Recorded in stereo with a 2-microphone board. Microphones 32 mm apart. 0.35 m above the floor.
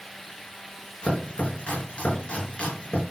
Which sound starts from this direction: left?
Chopping, at 1.0 s.